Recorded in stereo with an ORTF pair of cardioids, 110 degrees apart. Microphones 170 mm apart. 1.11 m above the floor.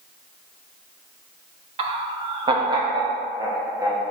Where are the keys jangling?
I don't hear keys jangling.